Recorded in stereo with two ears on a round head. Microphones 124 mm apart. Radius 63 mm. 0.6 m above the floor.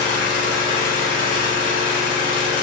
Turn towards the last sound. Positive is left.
turn(degrees=65)  # may be behind; listen again after turning